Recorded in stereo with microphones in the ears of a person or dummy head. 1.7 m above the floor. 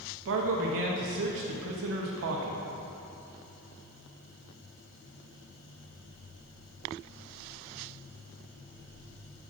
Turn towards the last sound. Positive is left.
turn(degrees=-60)  # may be behind; listen again after turning